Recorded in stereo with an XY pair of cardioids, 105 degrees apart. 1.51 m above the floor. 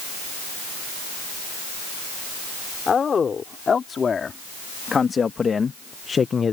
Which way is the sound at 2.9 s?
40° left.